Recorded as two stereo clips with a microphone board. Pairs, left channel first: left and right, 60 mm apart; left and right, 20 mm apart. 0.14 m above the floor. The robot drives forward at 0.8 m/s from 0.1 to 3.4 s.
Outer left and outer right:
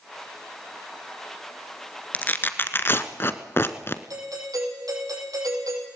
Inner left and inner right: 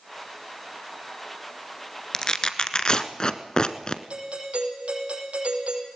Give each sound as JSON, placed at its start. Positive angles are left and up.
{"t": 2.1, "sound": "tearing paper", "side_deg": 30, "distance_m": 1.4}
{"t": 4.1, "sound": "a doorbell", "side_deg": -75, "distance_m": 5.0}